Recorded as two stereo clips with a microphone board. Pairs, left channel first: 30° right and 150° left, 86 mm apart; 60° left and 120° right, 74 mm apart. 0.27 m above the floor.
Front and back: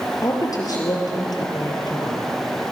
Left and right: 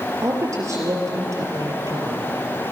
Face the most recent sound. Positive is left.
turn(degrees=-70)